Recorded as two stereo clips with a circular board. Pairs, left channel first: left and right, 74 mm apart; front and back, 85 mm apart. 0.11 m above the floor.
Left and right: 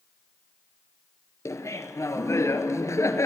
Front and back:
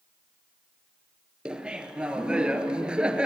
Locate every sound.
1.4 s laughter: 105° left, 1.6 m